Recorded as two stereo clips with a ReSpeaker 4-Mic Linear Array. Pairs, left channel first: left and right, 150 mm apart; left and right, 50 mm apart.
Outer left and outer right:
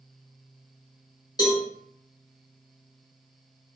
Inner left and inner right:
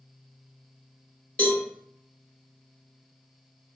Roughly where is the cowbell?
Left.